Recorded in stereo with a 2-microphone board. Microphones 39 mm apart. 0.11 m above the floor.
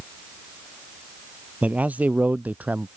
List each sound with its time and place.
1.6 s a man speaking: 35° right (ahead or behind); by 2.9 s 40° right (ahead or behind)